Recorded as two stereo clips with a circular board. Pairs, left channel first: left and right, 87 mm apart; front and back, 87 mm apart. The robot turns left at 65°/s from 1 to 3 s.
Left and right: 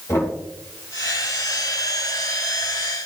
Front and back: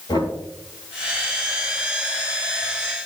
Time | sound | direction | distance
0.1 | knocking | 35° left | 4 m